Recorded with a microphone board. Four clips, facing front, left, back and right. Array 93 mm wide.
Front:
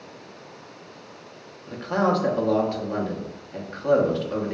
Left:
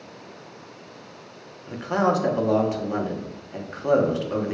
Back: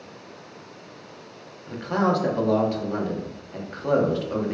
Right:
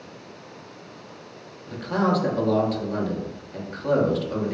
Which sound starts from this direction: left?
A man speaking, at 1.7 s.